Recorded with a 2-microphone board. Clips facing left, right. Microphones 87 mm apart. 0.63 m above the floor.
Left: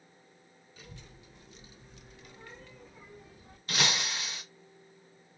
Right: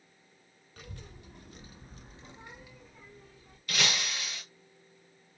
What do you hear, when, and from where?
0.8 s a child speaking: 55° right (ahead or behind), 1.3 m; by 3.6 s 25° left (ahead or behind), 0.9 m
3.7 s breaking glass: 25° left (ahead or behind), 2 m